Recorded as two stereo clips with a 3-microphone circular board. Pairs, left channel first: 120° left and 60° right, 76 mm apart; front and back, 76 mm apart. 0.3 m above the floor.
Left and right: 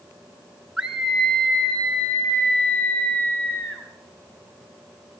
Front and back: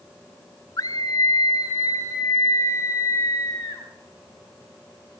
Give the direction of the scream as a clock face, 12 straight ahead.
11 o'clock.